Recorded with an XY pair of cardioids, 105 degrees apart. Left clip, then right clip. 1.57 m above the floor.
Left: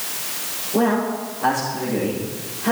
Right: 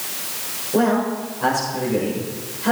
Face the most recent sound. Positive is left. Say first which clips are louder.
# right 1 dB
turn(degrees=-55)